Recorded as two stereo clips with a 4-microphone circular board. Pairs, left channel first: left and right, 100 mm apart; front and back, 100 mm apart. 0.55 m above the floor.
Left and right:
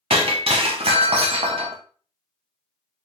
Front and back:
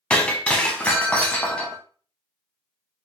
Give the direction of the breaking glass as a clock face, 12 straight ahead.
3 o'clock.